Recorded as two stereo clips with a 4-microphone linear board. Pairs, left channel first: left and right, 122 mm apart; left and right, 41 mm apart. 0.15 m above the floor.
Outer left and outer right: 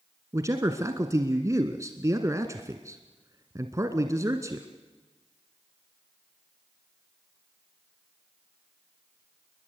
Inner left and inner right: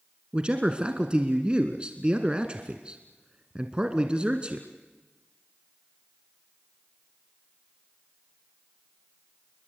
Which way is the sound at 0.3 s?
25° right (ahead or behind).